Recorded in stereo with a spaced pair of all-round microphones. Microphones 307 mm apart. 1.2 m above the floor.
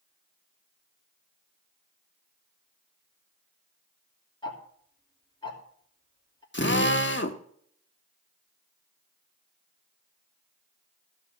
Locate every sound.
4.4 s ticking: 15° left (ahead or behind), 3 m
6.5 s a drill: 35° left (ahead or behind), 1.1 m